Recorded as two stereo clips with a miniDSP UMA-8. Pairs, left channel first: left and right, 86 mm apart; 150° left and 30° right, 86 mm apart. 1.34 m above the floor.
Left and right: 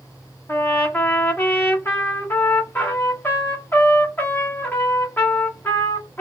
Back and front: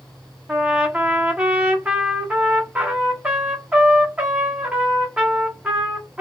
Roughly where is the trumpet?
Ahead left.